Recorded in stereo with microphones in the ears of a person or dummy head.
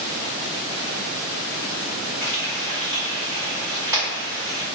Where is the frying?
20° right (ahead or behind), 1.6 m.